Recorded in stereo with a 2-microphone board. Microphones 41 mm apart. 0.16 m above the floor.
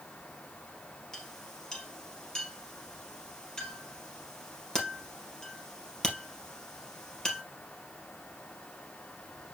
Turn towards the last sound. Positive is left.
turn(degrees=20)  # may be behind; listen again after turning